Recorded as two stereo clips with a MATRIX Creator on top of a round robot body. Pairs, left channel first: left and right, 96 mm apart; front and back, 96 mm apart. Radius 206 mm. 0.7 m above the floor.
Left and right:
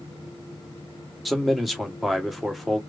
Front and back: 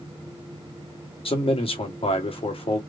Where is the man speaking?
Straight ahead, 2 m.